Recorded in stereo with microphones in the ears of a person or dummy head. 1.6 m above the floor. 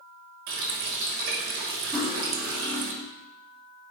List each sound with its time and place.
0.5 s a running tap: 50° right (ahead or behind), 1.0 m
1.9 s cutlery clinking: 5° left (ahead or behind), 1.5 m